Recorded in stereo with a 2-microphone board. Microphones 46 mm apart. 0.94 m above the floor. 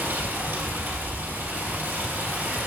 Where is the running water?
40° right (ahead or behind), 4 m.